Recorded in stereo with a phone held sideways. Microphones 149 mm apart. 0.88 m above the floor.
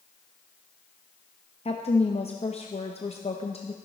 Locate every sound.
1.6 s a woman speaking: 45° left (ahead or behind), 0.6 m